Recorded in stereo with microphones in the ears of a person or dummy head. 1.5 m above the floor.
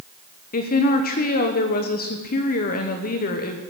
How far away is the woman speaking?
About 1.1 m.